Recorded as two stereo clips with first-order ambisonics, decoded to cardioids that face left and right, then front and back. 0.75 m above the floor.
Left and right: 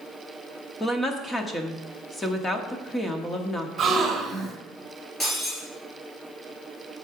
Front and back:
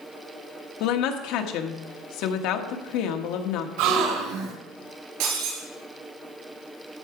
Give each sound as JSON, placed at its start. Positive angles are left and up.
{"t": 0.8, "sound": "a woman speaking", "azimuth_deg": 15, "distance_m": 1.3}
{"t": 3.8, "sound": "a gasp", "azimuth_deg": -160, "distance_m": 3.0}
{"t": 5.2, "sound": "breaking glass", "azimuth_deg": 165, "distance_m": 4.5}